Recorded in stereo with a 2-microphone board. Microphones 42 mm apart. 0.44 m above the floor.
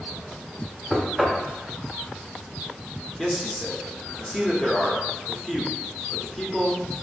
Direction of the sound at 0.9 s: Centre (ahead or behind).